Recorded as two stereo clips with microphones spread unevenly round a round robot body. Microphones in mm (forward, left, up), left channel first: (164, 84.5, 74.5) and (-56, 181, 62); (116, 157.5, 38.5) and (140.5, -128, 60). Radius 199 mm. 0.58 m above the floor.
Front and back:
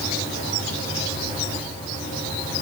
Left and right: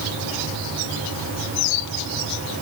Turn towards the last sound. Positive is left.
No sound to turn to.